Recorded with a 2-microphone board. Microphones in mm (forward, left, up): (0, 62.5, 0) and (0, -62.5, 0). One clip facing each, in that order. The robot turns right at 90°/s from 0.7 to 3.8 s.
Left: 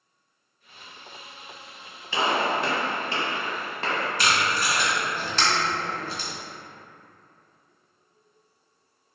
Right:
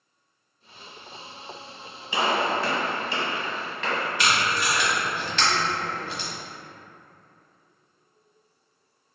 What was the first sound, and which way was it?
A gunshot, 15° right (ahead or behind).